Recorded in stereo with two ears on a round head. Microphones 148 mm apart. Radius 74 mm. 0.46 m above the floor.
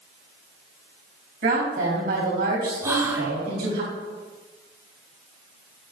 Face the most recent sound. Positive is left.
turn(degrees=-15)  # may be behind; listen again after turning